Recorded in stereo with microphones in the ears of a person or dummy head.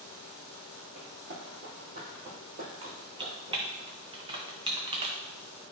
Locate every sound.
0.9 s running footsteps: 45° right (ahead or behind), 2.5 m; by 3.8 s 15° right (ahead or behind), 2.5 m
2.8 s typing on a keyboard: 25° right (ahead or behind), 0.7 m